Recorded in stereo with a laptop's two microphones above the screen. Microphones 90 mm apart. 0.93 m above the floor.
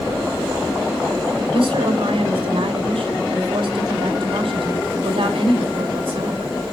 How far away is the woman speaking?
About 3.5 m.